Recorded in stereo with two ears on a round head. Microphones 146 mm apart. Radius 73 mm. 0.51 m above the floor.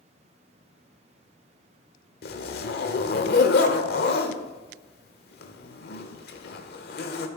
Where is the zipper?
65° left (ahead or behind), 1.1 m.